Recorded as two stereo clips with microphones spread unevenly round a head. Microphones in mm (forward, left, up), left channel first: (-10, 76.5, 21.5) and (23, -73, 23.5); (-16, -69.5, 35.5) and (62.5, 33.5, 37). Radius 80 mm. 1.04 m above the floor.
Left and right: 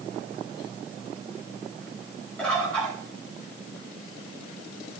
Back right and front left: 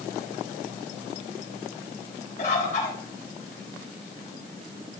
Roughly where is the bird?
Behind.